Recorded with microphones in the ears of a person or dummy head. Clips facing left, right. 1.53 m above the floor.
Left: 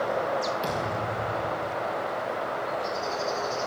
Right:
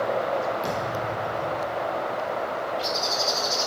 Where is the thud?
20° left (ahead or behind), 6.5 m.